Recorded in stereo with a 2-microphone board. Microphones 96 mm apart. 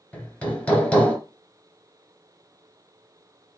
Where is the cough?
I don't hear a cough.